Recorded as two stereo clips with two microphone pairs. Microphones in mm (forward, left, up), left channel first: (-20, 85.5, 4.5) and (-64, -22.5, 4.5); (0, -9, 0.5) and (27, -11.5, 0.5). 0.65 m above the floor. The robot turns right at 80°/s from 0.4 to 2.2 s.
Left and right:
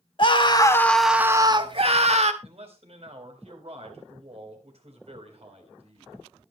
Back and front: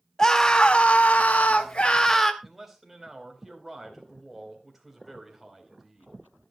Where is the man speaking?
85° right, 3.5 m.